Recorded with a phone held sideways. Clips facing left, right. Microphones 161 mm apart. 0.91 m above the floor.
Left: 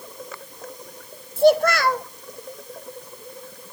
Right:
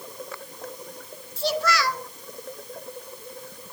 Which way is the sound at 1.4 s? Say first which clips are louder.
Left 10 dB; 55° left (ahead or behind).